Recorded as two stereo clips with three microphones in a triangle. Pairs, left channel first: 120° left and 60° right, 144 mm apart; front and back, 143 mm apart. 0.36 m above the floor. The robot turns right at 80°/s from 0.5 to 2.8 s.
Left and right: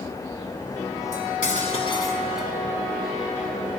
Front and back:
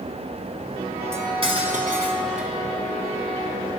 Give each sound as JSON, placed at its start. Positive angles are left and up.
{"t": 1.1, "sound": "cutlery clinking", "azimuth_deg": 110, "distance_m": 1.8}